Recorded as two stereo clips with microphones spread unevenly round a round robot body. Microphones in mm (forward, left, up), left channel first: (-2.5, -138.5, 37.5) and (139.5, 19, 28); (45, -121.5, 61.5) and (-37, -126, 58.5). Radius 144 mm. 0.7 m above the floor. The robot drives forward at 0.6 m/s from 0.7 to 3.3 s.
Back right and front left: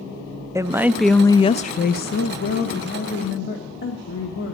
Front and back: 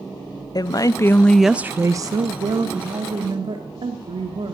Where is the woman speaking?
25° right, 0.6 m; by 4.5 s 170° right, 1.2 m.